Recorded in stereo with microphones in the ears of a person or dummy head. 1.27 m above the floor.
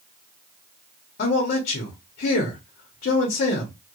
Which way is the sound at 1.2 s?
50° left (ahead or behind).